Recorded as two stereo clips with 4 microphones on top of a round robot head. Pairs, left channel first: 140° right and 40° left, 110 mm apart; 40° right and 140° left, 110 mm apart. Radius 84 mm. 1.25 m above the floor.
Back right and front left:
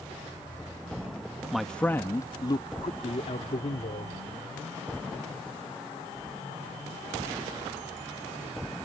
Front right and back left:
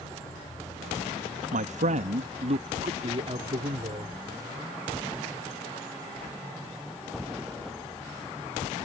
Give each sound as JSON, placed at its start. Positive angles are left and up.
{"t": 1.5, "sound": "a man speaking", "azimuth_deg": 125}